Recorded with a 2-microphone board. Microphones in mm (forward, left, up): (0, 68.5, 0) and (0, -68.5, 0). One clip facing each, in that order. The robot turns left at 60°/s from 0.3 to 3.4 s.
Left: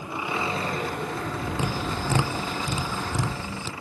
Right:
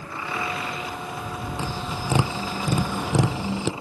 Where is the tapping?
15° left; by 3.7 s 90° right.